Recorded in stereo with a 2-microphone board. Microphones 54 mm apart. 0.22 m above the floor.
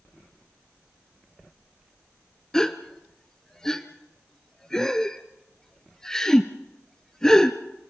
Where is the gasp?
10° left (ahead or behind), 1.1 m.